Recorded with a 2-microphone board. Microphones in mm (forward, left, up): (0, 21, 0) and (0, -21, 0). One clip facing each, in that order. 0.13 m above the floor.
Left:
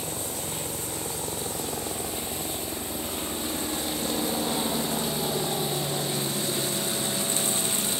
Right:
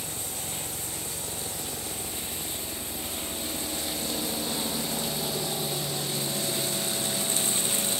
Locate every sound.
0.0 s a helicopter: 35° left (ahead or behind); by 8.0 s 10° left (ahead or behind)